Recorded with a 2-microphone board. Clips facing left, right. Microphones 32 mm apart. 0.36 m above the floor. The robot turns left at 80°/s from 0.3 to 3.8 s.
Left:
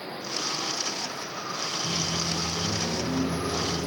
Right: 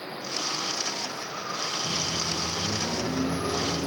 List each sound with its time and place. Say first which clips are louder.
1.8 s a microwave: even; 95° left, 6.5 m; by 3.9 s 60° right, 6.5 m